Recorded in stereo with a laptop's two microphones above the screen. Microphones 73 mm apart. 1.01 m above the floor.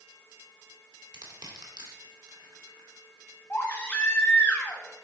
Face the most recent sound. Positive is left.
turn(degrees=20)  # may be behind; listen again after turning